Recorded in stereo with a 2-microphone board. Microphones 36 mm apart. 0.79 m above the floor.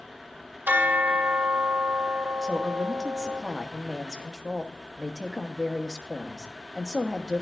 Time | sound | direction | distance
0.7 | a bell | 80° right | 1.0 m
2.4 | a woman speaking | 10° right (ahead or behind) | 1.1 m